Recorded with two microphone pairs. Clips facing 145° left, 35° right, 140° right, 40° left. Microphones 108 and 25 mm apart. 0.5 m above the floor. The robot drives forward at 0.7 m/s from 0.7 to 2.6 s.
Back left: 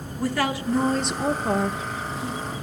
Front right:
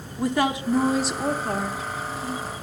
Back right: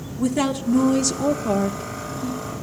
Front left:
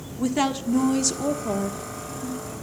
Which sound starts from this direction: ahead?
A woman speaking, at 0.2 s.